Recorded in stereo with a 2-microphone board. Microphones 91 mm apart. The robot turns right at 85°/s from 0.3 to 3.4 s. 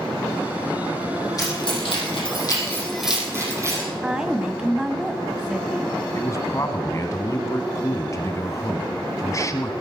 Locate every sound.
1.4 s keys jangling: 40° left (ahead or behind), 6 m; by 3.8 s 30° right (ahead or behind), 6 m
4.0 s a woman speaking: 10° right (ahead or behind), 1.2 m
6.1 s a man speaking: 35° left (ahead or behind), 1.5 m